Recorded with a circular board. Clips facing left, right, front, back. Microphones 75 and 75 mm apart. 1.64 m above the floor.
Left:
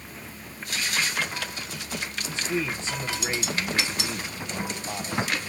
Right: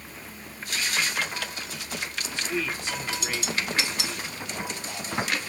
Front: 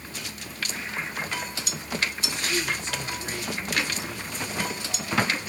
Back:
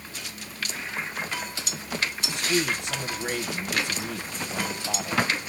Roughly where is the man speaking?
Behind left.